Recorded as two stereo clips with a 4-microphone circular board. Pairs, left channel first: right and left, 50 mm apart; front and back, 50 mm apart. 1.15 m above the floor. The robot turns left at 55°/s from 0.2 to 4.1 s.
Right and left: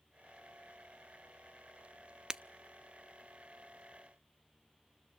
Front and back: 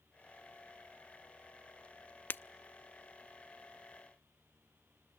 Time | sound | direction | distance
2.3 | breaking glass | 20° left | 0.5 m